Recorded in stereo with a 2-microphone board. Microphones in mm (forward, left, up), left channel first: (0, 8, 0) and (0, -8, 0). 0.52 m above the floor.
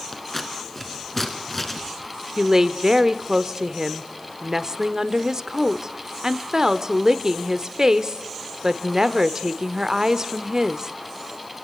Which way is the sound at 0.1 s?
25° left (ahead or behind).